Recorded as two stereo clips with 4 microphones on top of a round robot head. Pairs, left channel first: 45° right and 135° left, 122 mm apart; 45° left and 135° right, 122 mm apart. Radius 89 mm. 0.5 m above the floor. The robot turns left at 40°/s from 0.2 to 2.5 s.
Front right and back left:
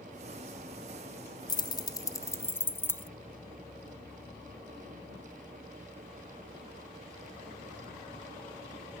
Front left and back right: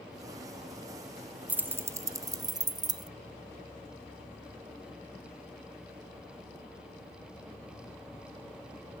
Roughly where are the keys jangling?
Ahead right.